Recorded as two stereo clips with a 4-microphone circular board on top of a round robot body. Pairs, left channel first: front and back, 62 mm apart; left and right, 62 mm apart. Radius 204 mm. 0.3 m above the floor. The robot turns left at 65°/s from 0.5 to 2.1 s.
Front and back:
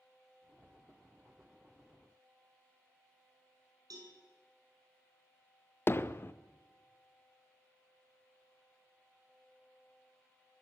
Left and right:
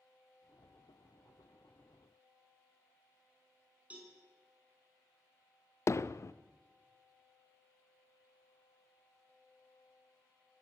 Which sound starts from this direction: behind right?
A cowbell, at 3.9 s.